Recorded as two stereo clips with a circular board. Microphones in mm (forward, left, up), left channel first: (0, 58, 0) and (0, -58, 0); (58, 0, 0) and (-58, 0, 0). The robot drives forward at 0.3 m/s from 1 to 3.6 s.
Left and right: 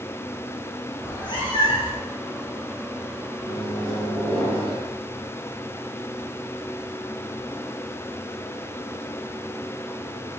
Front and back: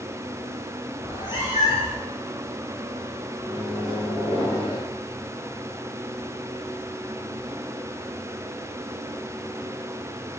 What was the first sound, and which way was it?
A cat meowing, 40° left.